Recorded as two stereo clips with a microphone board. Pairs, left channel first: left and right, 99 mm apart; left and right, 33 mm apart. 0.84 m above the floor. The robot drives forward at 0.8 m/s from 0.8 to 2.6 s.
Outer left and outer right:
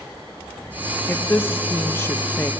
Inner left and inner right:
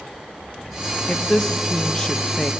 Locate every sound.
1.1 s a woman speaking: 20° left (ahead or behind), 1.3 m; by 2.5 s 25° left (ahead or behind), 1.1 m